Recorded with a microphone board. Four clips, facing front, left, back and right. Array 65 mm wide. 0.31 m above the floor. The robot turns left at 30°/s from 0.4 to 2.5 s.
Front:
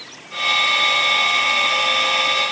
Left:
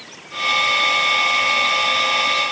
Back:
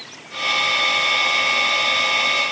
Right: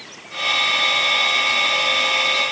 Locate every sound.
Only background noise.